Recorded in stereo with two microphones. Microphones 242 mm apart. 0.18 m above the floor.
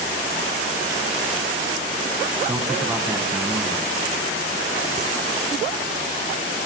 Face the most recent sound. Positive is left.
turn(degrees=-10)  # may be behind; listen again after turning